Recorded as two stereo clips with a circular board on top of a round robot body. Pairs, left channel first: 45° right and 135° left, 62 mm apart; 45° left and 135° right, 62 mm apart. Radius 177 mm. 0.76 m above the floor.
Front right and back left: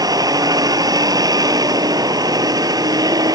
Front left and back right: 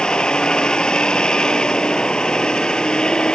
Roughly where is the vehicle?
Behind left.